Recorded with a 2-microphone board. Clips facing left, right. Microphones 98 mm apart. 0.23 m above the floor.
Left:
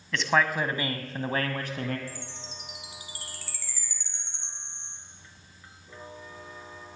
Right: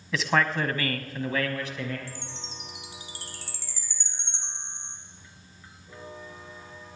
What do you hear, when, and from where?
0.1 s a man speaking: 5° right (ahead or behind), 1.4 m; by 2.0 s 50° left (ahead or behind), 1.7 m
2.1 s a chime: 30° right (ahead or behind), 2 m